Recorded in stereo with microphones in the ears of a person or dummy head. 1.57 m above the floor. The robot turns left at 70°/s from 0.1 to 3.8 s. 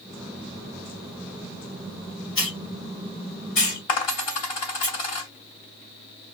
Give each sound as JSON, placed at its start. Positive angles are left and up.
{"t": 2.4, "sound": "a hiss", "side_deg": 0, "distance_m": 1.3}
{"t": 3.9, "sound": "a dropped coin", "side_deg": 30, "distance_m": 1.4}